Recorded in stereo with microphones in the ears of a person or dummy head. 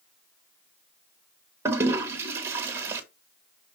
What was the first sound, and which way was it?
A toilet flushing, 15° right (ahead or behind).